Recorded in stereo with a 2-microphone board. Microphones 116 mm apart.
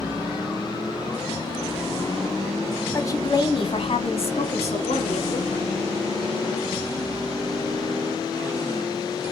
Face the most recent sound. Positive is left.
turn(degrees=70)  # may be behind; listen again after turning